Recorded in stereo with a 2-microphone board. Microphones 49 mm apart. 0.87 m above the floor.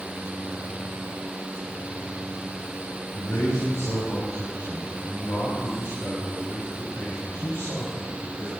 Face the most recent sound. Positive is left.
turn(degrees=80)